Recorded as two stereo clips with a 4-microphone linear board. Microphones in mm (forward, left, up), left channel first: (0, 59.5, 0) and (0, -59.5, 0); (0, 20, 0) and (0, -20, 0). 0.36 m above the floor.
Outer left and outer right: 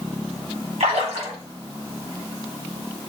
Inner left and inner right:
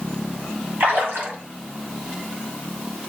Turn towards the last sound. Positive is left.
turn(degrees=-65)  # may be behind; listen again after turning